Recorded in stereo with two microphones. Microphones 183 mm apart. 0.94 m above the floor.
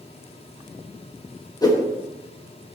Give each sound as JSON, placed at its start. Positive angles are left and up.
{"t": 1.6, "sound": "a whoosh", "side_deg": 20, "distance_m": 1.4}